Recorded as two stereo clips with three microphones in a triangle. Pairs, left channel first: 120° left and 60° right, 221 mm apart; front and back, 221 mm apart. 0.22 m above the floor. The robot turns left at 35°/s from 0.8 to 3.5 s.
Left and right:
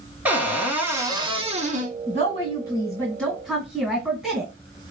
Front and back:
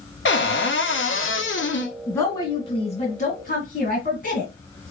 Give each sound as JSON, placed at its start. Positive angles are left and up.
{"t": 0.2, "sound": "a cupboard door", "azimuth_deg": 20, "distance_m": 0.6}
{"t": 2.1, "sound": "a woman speaking", "azimuth_deg": 80, "distance_m": 1.6}